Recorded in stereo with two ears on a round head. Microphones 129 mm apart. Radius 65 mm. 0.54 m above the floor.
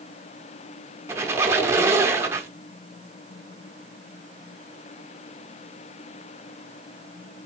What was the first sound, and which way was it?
A squeak, 20° right (ahead or behind).